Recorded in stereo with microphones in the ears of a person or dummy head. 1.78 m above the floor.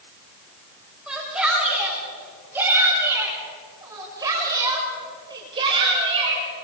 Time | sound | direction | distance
1.1 | a shout | 5° right (ahead or behind) | 8.5 m